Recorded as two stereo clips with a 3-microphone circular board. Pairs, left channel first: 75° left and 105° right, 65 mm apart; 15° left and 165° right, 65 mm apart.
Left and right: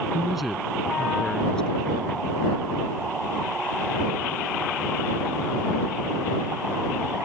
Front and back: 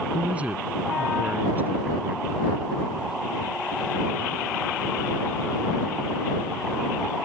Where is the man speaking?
170° right; by 2.3 s 140° left.